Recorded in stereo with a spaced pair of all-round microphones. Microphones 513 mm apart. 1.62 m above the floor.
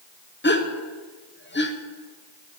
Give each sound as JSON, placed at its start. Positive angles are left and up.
{"t": 0.4, "sound": "a gasp", "side_deg": 20, "distance_m": 0.6}